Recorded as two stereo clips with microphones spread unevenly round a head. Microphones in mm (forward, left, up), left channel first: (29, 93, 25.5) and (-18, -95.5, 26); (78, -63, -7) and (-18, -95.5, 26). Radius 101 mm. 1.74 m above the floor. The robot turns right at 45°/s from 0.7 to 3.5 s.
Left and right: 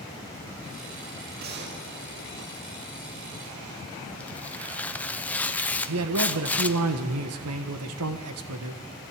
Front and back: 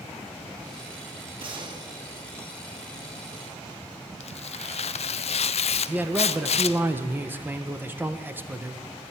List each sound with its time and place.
1.4 s a gunshot: 150° right, 2 m; by 2.9 s 80° right, 2 m
4.2 s tearing paper: 5° right, 0.6 m
5.9 s a man speaking: 95° right, 1.5 m